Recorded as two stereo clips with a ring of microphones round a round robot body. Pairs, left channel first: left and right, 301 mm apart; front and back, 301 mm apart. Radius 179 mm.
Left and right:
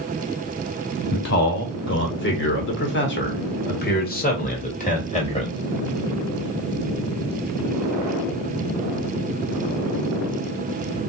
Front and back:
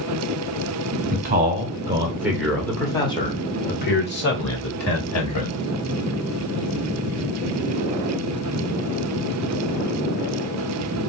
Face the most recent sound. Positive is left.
turn(degrees=25)